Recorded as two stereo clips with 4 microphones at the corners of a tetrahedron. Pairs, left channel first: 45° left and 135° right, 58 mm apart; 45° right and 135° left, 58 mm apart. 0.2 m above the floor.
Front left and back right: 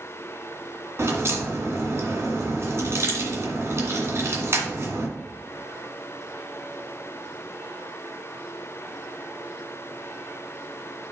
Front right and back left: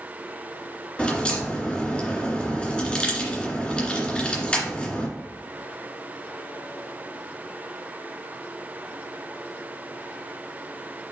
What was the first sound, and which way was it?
A crack, 110° right.